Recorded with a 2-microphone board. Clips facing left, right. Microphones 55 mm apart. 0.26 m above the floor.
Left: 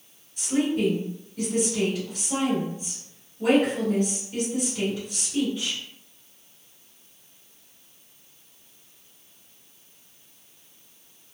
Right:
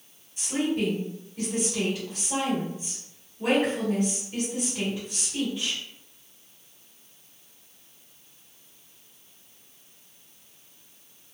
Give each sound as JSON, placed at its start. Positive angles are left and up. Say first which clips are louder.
{"t": 0.4, "sound": "a woman speaking", "louder": "left 3 dB", "side_deg": 0, "distance_m": 1.6}